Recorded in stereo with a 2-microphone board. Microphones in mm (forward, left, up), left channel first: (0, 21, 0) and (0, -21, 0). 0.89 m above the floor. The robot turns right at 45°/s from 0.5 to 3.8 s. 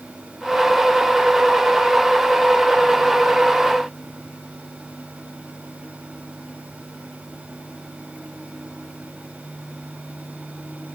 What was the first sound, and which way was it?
Only background noise.